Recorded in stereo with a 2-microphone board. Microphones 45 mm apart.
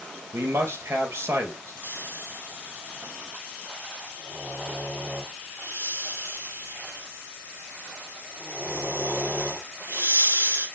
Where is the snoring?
85° right, 6 m.